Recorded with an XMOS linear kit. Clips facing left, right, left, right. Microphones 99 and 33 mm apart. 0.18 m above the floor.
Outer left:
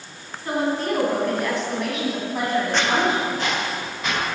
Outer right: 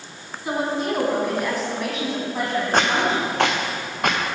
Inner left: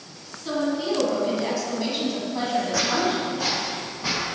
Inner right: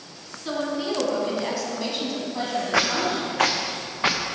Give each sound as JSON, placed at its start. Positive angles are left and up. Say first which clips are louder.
{"t": 0.5, "sound": "a woman speaking", "louder": "outer left 1 dB, inner left 2 dB", "side_deg": -10, "distance_m": 1.6}
{"t": 2.7, "sound": "footsteps", "louder": "outer right 4 dB, inner right 4 dB", "side_deg": -50, "distance_m": 0.7}